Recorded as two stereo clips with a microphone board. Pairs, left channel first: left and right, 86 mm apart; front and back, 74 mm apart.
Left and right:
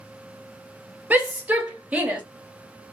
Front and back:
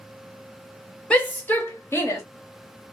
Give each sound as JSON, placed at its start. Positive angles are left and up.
{"t": 1.1, "sound": "a shout", "azimuth_deg": -50, "distance_m": 1.0}